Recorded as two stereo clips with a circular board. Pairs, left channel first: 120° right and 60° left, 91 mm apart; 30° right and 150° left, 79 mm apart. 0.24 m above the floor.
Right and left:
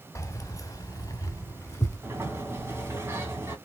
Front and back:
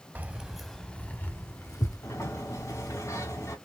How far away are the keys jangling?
About 0.9 m.